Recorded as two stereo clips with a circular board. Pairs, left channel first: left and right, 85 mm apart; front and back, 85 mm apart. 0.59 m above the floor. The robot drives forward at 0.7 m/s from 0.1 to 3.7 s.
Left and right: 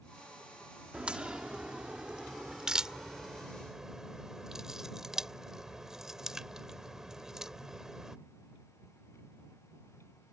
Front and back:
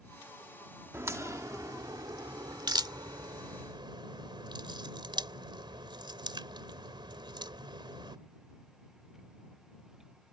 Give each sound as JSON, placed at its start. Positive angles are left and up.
{"t": 0.9, "sound": "a crack", "azimuth_deg": -155}